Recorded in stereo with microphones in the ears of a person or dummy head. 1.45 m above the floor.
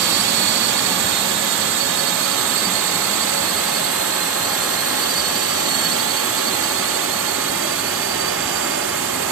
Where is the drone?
65° right (ahead or behind).